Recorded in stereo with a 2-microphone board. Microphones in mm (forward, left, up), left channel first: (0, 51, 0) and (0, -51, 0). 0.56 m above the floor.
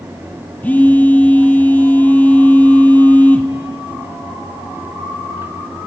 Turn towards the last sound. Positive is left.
turn(degrees=15)  # may be behind; listen again after turning